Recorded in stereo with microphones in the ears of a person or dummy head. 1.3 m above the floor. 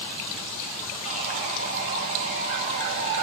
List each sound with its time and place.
1.0 s sawing: 35° right (ahead or behind), 0.6 m